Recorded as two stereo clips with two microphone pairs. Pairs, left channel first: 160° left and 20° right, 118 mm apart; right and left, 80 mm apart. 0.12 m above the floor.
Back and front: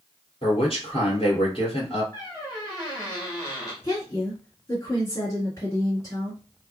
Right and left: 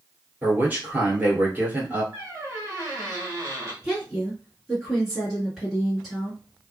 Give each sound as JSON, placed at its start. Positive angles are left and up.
{"t": 0.4, "sound": "a man speaking", "azimuth_deg": 150, "distance_m": 1.7}
{"t": 2.1, "sound": "a squeak", "azimuth_deg": 120, "distance_m": 1.4}
{"t": 3.8, "sound": "a woman speaking", "azimuth_deg": 165, "distance_m": 1.7}